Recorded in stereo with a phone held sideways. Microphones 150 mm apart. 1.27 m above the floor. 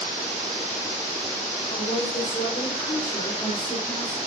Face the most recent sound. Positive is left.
turn(degrees=65)  # may be behind; listen again after turning